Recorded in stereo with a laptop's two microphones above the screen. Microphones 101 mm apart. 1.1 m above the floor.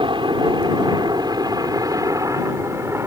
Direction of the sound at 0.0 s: 50° right (ahead or behind).